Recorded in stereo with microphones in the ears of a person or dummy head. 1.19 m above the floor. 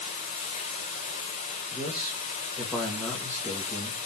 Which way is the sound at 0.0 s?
50° left (ahead or behind).